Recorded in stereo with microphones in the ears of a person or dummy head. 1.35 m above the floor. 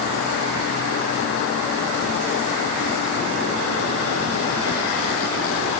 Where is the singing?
I don't hear singing.